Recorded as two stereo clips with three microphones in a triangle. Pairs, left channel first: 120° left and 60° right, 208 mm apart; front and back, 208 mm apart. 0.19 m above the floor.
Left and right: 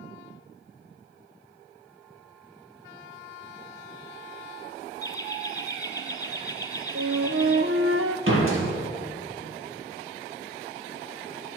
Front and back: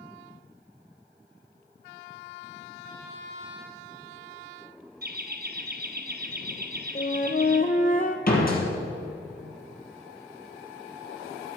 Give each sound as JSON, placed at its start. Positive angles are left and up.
{"t": 5.0, "sound": "laughter", "azimuth_deg": -170, "distance_m": 2.0}
{"t": 7.0, "sound": "a flute", "azimuth_deg": -50, "distance_m": 0.8}
{"t": 8.3, "sound": "a door slam", "azimuth_deg": -45, "distance_m": 3.5}